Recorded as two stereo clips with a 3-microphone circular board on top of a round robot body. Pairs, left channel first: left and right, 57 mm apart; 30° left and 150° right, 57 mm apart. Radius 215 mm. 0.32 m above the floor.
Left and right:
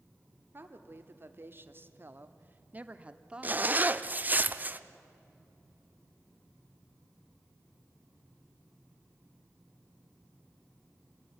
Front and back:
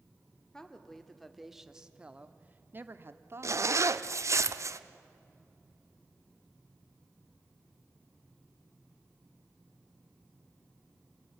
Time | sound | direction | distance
0.5 | a woman speaking | 50° right | 2 m
3.4 | a zipper | 145° right | 1.0 m